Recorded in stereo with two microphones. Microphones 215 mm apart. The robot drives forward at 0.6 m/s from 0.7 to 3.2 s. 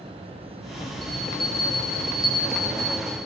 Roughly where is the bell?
Left.